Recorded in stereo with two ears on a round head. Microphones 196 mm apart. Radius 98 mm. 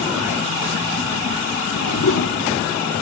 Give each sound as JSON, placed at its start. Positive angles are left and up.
{"t": 1.7, "sound": "a whoosh", "side_deg": 75, "distance_m": 1.2}